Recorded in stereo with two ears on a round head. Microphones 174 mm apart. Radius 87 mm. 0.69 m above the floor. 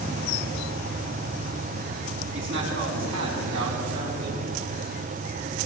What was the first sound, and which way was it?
A man speaking, 65° right (ahead or behind).